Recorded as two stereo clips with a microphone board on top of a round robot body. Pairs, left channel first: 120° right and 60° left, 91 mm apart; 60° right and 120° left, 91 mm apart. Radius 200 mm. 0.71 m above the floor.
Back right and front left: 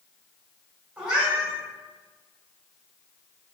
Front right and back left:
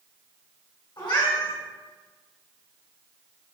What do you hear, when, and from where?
1.0 s a cat meowing: 15° right, 1.7 m